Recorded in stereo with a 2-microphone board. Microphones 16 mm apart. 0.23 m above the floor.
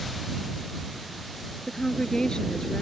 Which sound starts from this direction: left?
A woman speaking, at 1.7 s.